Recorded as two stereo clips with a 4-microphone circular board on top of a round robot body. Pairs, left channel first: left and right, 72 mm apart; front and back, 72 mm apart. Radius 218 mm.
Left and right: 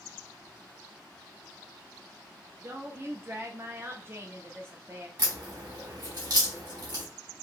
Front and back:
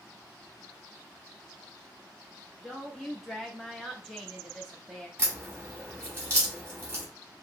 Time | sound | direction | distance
2.6 | a woman speaking | 90° right | 1.0 m
5.2 | a crack | 120° right | 2.5 m